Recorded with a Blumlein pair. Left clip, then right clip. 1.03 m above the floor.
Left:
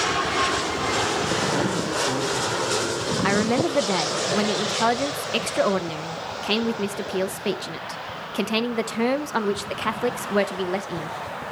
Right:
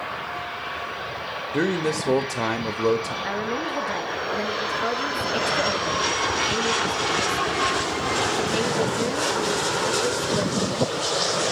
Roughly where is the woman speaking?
Ahead left.